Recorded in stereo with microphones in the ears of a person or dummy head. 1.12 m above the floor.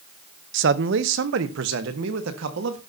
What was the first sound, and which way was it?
A man speaking, 55° right (ahead or behind).